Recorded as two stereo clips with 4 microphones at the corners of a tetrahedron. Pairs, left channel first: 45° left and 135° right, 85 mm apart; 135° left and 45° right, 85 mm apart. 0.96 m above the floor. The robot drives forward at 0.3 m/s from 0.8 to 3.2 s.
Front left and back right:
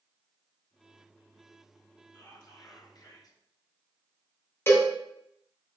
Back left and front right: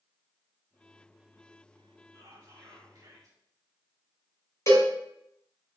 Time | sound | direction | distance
2.1 | whispering | 5° left | 1.1 m
4.7 | a cowbell | 100° left | 0.7 m